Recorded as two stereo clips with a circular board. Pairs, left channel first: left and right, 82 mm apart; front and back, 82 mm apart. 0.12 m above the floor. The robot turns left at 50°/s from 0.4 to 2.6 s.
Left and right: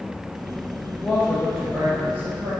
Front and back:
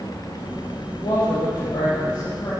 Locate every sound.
1.0 s a woman speaking: 5° left, 4.5 m; by 2.5 s 70° right, 4.5 m